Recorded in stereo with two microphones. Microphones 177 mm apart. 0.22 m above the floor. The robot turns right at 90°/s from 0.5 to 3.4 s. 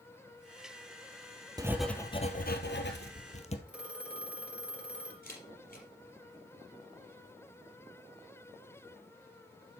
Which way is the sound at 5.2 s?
60° left (ahead or behind).